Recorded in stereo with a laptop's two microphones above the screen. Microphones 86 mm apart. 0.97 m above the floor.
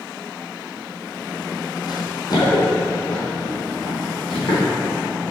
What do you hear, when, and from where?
1.9 s running footsteps: 50° left (ahead or behind), 1.7 m; by 4.7 s 60° left (ahead or behind), 3.5 m